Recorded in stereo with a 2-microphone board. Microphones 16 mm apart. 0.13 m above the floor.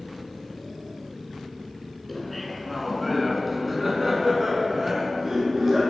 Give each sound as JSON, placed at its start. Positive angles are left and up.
{"t": 2.1, "sound": "laughter", "side_deg": 10, "distance_m": 1.5}